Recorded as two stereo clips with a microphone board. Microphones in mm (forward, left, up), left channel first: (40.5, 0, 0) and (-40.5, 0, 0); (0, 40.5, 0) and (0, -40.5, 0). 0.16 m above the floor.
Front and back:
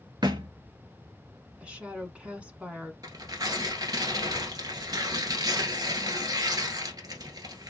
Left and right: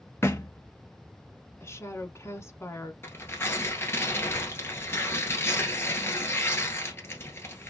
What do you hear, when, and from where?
0.2 s a thud: 150° left, 0.9 m
1.6 s a woman speaking: 115° left, 1.3 m
3.0 s tearing paper: 145° left, 1.4 m